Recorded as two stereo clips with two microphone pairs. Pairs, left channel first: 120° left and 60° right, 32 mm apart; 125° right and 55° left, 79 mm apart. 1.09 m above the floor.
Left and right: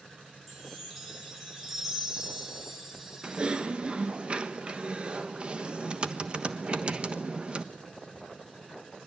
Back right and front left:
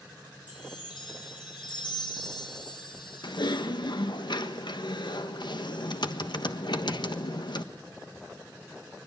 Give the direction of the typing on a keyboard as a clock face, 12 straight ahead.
4 o'clock.